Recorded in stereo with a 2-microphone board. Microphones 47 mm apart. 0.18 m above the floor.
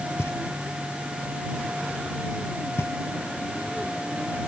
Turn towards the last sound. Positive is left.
turn(degrees=70)  # may be behind; listen again after turning